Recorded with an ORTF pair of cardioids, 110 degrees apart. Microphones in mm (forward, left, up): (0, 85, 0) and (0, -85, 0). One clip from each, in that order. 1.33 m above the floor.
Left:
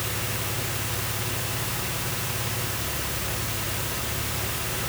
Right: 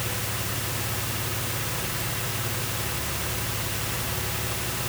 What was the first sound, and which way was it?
Only background noise.